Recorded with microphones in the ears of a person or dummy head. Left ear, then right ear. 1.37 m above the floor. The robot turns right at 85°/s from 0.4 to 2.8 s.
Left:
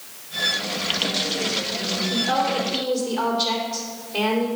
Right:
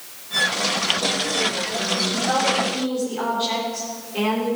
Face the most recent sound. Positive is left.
turn(degrees=55)